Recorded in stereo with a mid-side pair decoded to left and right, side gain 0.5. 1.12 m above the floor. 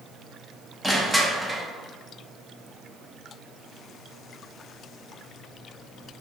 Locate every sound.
0.8 s crushing: straight ahead, 0.7 m